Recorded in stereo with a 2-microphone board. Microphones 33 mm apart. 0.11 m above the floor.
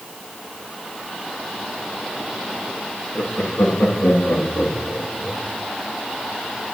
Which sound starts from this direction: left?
Laughter, at 3.1 s.